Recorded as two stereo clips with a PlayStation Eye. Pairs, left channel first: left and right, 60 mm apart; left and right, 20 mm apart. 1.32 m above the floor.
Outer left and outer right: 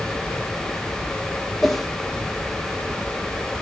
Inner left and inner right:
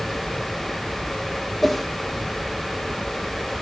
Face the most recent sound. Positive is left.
turn(degrees=0)  # may be behind; listen again after turning